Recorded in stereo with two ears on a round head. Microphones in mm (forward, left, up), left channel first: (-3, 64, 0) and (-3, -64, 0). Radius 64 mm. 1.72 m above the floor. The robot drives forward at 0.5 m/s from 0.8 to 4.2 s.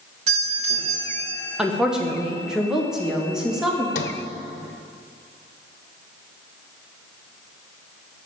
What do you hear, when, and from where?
0.3 s a doorbell: 45° right (ahead or behind), 3.5 m; by 1.4 s 50° right (ahead or behind), 3 m
1.6 s a woman speaking: 5° right (ahead or behind), 1.6 m
4.0 s a sliding door: 55° left (ahead or behind), 0.9 m